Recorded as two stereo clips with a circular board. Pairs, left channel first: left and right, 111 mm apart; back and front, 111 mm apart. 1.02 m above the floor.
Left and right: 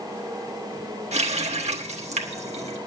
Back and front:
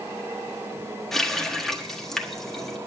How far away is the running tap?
About 1.3 m.